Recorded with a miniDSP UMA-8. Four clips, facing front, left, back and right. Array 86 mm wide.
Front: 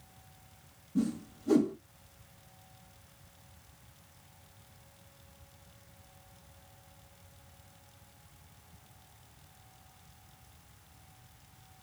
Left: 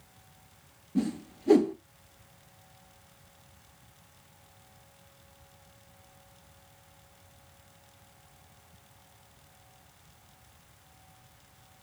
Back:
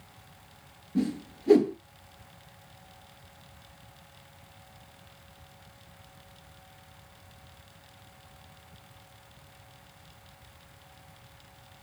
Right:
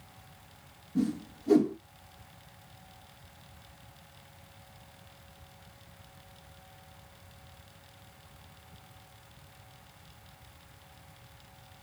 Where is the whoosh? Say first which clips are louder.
Even, back 3 dB; 145° left, 1.1 m.